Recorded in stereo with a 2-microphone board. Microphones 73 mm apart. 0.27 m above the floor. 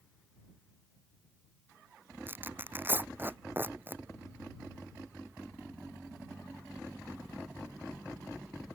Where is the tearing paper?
25° right (ahead or behind).